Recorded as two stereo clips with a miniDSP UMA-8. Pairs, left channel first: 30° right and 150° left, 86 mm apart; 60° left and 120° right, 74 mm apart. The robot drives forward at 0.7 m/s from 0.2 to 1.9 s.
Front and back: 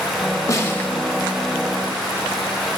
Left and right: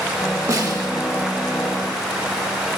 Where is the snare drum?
80° right, 0.9 m; by 0.9 s 100° right, 0.9 m.